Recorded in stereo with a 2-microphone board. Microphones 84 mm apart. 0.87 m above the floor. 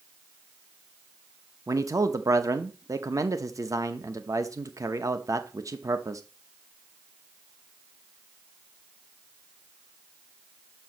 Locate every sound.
1.7 s a man speaking: 40° right (ahead or behind), 0.8 m